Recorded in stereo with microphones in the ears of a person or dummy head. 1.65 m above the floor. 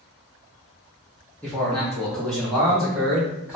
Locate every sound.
1.4 s a man speaking: 10° left (ahead or behind), 0.5 m; by 3.6 s 5° right (ahead or behind), 1.4 m